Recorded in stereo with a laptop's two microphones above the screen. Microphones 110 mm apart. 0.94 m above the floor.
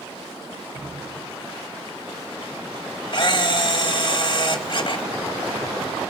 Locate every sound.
0.7 s dripping: 50° right (ahead or behind), 4.5 m
3.1 s a camera shutter: 45° left (ahead or behind), 1.1 m